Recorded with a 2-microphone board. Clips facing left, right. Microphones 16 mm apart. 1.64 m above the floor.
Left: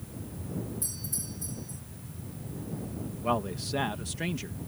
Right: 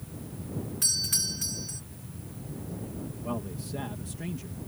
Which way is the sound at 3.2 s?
55° left (ahead or behind).